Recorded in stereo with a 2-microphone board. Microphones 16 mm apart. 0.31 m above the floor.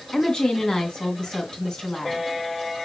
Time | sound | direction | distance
0.1 | a woman speaking | 65° left (ahead or behind) | 2.5 m